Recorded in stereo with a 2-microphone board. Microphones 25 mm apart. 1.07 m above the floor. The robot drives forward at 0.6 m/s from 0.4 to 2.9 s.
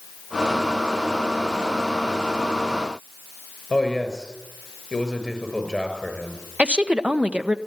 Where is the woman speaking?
55° right (ahead or behind), 1.2 m.